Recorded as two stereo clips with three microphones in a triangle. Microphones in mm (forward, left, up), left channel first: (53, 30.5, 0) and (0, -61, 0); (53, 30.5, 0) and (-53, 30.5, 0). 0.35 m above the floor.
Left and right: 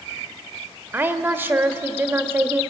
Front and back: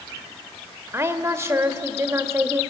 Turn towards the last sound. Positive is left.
turn(degrees=-160)